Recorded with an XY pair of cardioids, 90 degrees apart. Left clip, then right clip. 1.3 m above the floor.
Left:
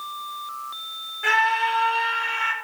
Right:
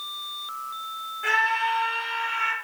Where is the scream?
30° left, 4.5 m; by 2.5 s 40° left, 4 m.